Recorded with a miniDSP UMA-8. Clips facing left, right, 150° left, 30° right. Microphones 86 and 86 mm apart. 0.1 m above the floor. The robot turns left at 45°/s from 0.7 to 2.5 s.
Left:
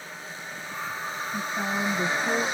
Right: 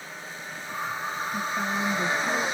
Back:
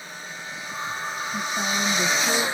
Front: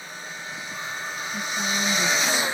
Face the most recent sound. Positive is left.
turn(degrees=125)